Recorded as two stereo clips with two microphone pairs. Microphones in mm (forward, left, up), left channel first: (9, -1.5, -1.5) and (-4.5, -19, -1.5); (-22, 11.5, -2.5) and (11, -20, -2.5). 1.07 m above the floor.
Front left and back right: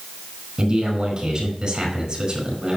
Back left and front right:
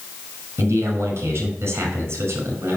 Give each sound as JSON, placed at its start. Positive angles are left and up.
{"t": 0.6, "sound": "a man speaking", "azimuth_deg": -70, "distance_m": 5.0}